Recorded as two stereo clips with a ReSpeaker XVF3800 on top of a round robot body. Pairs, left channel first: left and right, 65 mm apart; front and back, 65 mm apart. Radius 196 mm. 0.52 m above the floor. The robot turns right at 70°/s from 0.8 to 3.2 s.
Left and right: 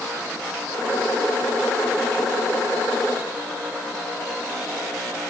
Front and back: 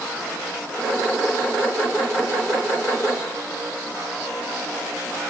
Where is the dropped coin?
No dropped coin in this recording.